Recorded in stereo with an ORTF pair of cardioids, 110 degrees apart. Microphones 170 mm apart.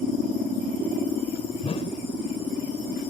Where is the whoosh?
35° left.